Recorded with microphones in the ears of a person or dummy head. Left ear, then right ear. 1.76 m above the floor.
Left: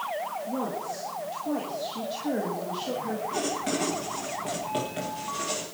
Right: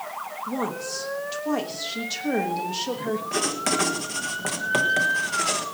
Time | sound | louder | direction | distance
0.5 | a woman speaking | right 2 dB | 70° right (ahead or behind) | 1.3 m
3.3 | writing | right 5 dB | 55° right (ahead or behind) | 1.5 m